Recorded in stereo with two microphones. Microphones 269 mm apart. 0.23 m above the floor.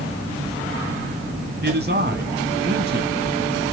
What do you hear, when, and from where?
1.6 s a man speaking: 40° right (ahead or behind), 1.7 m